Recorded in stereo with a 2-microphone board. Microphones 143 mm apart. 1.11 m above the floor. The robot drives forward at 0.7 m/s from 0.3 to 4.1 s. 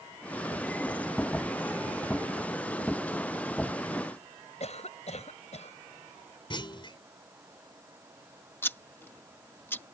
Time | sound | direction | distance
4.6 | a cough | 50° left (ahead or behind) | ?
6.5 | a clunk | 35° left (ahead or behind) | ?
8.6 | scissors | 15° left (ahead or behind) | ?